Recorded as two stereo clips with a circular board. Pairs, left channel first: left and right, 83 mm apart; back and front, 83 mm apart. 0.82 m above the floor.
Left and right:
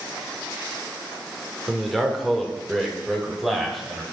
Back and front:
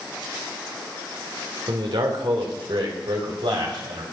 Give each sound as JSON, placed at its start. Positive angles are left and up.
{"t": 1.7, "sound": "a man speaking", "azimuth_deg": 0, "distance_m": 2.5}